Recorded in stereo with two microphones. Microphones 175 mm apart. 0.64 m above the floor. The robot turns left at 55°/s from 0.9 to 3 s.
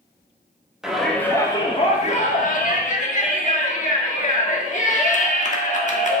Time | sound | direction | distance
0.8 | a shout | 175° right | 1.5 m